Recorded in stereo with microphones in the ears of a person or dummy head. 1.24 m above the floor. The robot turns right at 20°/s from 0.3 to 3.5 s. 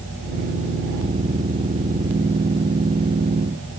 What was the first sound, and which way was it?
Only background noise.